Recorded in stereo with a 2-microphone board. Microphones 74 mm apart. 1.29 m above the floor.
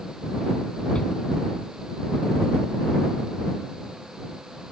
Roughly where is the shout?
Centre.